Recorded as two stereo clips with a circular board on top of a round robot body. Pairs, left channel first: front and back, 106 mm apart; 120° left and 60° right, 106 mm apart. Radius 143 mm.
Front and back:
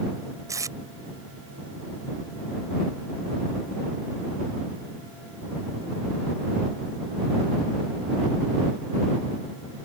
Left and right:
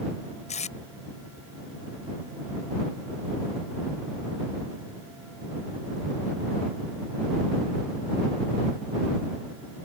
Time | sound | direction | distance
0.5 | tape being pulled | 120° left | ?